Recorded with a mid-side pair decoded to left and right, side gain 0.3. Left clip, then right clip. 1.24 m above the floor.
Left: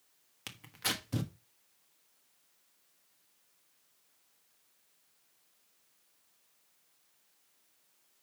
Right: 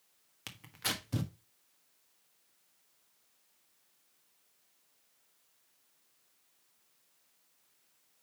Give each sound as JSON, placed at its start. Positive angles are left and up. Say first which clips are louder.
{"t": 0.5, "sound": "tearing paper", "louder": "left 1 dB", "azimuth_deg": 0, "distance_m": 1.4}